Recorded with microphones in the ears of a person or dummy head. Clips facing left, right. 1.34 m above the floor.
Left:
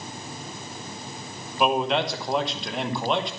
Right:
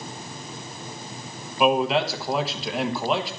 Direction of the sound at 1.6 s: 5° right (ahead or behind).